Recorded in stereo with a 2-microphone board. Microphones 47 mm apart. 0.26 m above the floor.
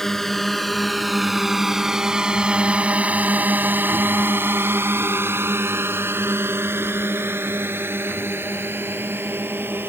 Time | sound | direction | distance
0.0 | a drone | 10° left (ahead or behind) | ?